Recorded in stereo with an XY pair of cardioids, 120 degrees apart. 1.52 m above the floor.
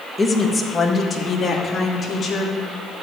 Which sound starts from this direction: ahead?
A woman speaking, at 0.2 s.